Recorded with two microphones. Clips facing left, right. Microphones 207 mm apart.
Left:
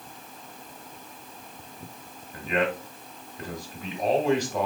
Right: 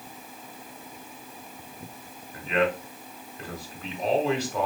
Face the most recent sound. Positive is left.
turn(degrees=15)  # may be behind; listen again after turning